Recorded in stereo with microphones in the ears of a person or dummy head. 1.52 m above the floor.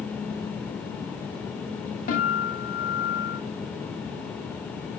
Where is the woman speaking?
I don't hear a woman speaking.